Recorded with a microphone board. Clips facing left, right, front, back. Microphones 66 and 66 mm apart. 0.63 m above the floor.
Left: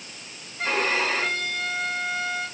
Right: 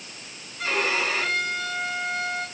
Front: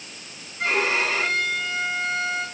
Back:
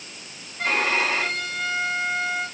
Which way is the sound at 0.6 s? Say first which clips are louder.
Left 1 dB, even; 145° left.